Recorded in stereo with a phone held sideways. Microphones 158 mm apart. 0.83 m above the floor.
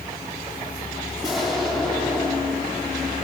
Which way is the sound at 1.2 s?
Centre (ahead or behind).